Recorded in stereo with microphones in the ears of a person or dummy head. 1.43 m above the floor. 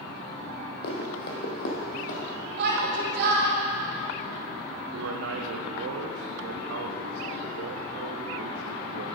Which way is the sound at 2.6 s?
60° right (ahead or behind).